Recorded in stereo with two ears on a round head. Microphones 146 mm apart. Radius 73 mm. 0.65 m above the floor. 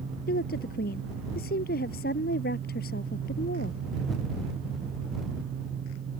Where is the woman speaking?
60° left (ahead or behind).